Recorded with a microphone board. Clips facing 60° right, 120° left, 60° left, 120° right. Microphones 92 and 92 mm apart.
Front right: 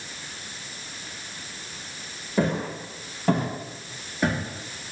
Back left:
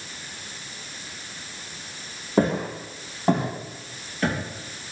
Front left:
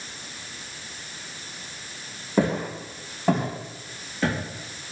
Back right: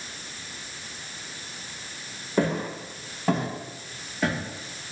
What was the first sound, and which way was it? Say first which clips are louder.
Footsteps: back left 3 dB, front left 2 dB; 125° left.